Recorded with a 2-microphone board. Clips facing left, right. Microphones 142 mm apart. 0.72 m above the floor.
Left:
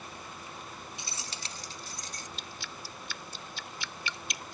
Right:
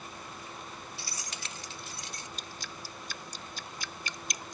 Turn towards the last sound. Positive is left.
turn(degrees=-40)  # may be behind; listen again after turning